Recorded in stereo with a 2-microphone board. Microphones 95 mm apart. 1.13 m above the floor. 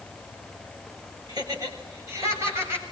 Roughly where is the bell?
I don't hear a bell.